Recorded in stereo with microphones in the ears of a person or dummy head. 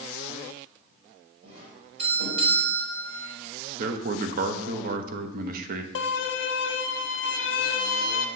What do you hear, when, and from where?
1.4 s a doorbell: 65° right (ahead or behind), 4 m
3.8 s a man speaking: 55° right (ahead or behind), 0.9 m
6.0 s a violin: 70° left (ahead or behind), 0.6 m